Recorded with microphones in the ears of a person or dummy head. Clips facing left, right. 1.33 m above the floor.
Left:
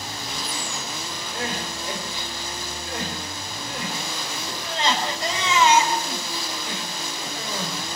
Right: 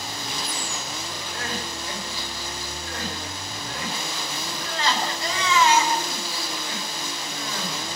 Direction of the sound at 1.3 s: 25° left (ahead or behind).